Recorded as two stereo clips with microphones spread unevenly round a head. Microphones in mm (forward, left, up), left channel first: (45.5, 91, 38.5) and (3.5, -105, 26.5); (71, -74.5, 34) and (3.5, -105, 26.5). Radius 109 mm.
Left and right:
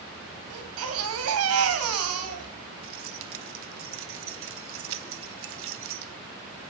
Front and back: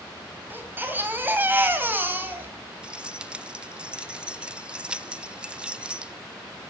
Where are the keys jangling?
75° right, 0.8 m.